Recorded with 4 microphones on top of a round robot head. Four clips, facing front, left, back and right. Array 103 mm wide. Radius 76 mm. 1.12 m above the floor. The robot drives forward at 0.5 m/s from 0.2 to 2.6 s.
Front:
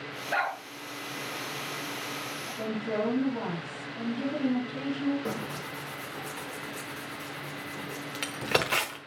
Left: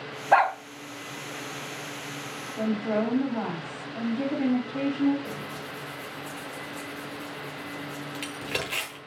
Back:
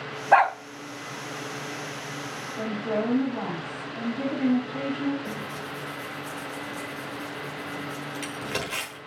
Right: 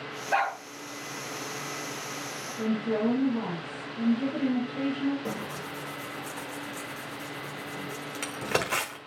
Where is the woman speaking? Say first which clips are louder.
Left 1 dB, back 3 dB; 120° left, 2.5 m.